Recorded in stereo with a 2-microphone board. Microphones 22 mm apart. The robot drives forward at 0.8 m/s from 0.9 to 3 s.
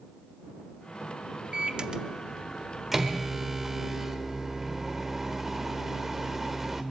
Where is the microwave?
35° right (ahead or behind), 0.5 m; by 6.8 s 15° right (ahead or behind), 1.1 m.